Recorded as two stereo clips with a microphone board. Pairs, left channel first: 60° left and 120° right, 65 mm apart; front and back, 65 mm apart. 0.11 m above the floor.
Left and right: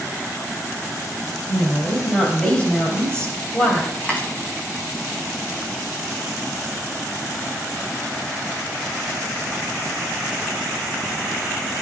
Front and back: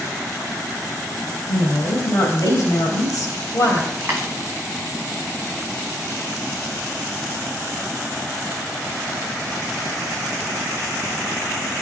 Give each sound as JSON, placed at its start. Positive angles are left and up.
{"t": 1.5, "sound": "a woman speaking", "azimuth_deg": -5, "distance_m": 3.0}
{"t": 4.0, "sound": "a dropped coin", "azimuth_deg": 125, "distance_m": 2.0}